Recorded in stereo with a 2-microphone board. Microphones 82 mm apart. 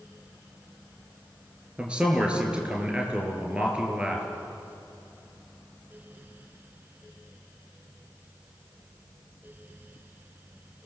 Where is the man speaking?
15° right (ahead or behind), 4.5 m.